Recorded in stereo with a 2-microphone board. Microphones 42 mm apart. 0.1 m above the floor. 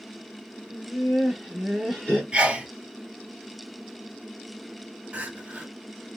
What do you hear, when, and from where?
0.7 s laughter: 5° right (ahead or behind), 1.4 m; by 2.2 s 15° left (ahead or behind), 1.4 m
2.3 s a sneeze: 25° right (ahead or behind), 1.2 m
5.1 s crying: 30° right (ahead or behind), 0.8 m